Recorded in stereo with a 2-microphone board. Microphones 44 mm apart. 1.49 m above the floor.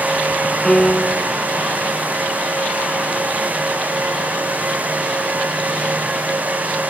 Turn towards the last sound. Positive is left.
turn(degrees=15)  # may be behind; listen again after turning